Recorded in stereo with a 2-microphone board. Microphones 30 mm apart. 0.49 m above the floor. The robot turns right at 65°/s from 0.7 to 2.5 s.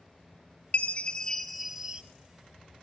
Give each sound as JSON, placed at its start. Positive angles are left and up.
{"t": 0.7, "sound": "a chime", "azimuth_deg": 130, "distance_m": 0.6}